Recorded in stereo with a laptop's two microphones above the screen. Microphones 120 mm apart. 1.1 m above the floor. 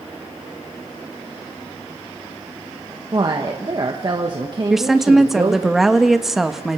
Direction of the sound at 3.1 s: 40° right (ahead or behind).